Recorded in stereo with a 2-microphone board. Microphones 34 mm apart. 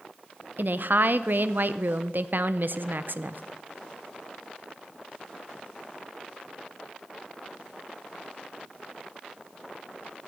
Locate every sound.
0.6 s a woman speaking: 60° right (ahead or behind), 0.6 m